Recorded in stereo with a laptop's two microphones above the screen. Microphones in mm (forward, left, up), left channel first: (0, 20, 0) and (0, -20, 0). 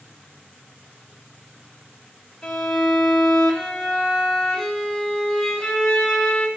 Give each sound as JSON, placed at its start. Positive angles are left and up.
{"t": 2.4, "sound": "a violin", "side_deg": 15, "distance_m": 3.0}